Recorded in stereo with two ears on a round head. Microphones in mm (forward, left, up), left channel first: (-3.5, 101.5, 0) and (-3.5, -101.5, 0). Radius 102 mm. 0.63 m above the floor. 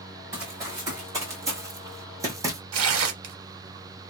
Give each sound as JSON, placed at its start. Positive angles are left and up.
{"t": 0.3, "sound": "running footsteps", "side_deg": -15, "distance_m": 2.5}
{"t": 2.7, "sound": "tearing paper", "side_deg": -65, "distance_m": 0.8}